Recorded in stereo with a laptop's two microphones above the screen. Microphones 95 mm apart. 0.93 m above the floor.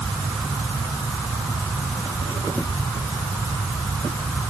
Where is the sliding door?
I don't hear a sliding door.